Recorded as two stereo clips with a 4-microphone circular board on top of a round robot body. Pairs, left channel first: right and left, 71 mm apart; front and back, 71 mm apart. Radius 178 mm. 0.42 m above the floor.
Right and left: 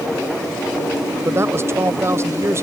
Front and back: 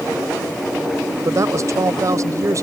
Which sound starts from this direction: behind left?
A woman speaking, at 1.2 s.